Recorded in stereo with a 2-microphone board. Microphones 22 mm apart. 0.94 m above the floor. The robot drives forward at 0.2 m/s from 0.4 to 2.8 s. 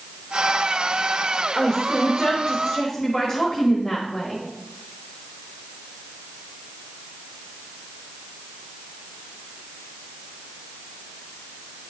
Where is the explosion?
No explosion in this recording.